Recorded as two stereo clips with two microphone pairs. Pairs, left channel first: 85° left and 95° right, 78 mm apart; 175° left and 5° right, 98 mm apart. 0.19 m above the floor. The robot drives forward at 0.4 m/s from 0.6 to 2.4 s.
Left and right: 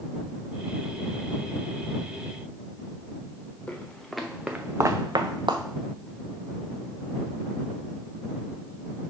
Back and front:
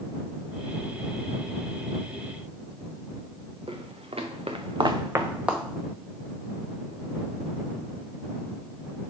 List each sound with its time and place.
3.7 s footsteps: 10° left, 1.5 m; by 5.6 s 90° right, 1.1 m